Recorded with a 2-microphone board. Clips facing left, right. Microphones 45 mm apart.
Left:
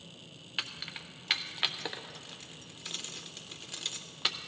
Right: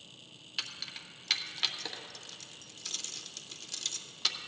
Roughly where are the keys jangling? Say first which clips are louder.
Left 2 dB; left.